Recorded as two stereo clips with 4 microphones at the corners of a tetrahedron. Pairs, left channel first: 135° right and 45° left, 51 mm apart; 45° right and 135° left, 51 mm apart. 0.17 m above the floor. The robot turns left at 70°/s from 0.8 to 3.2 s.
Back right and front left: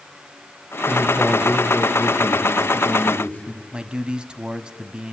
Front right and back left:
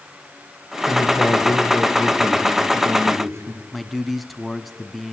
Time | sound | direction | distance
0.9 | a man speaking | 30° right | 8 m
3.7 | a man speaking | 45° left | 1.1 m